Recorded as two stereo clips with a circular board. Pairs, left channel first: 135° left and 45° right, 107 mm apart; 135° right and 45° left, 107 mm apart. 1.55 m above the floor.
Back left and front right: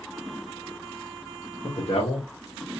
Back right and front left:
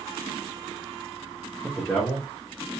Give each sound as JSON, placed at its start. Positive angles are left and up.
{"t": 1.6, "sound": "a man speaking", "azimuth_deg": 140, "distance_m": 1.2}